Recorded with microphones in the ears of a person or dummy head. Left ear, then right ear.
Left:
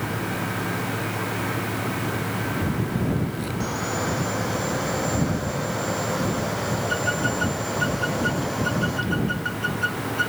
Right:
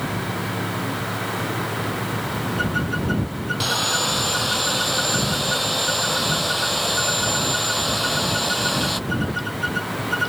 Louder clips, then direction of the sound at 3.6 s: Right 7 dB; 70° right (ahead or behind).